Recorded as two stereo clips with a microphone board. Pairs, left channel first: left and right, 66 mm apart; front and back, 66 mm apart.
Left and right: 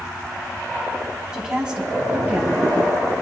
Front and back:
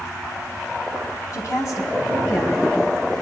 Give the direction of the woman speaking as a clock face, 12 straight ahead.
12 o'clock.